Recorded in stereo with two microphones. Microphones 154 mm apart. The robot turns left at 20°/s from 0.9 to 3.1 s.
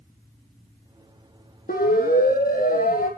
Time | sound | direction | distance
1.7 | a siren | 75° left (ahead or behind) | 5.5 m